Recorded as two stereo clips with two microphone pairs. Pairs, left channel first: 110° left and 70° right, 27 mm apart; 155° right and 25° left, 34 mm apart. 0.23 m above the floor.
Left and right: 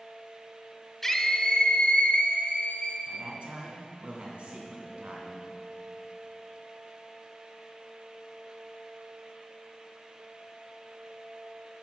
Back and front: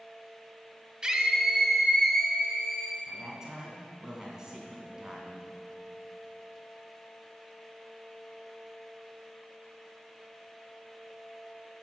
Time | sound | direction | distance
1.0 | a scream | 45° left | 1.0 m
3.1 | a man speaking | 45° right | 2.5 m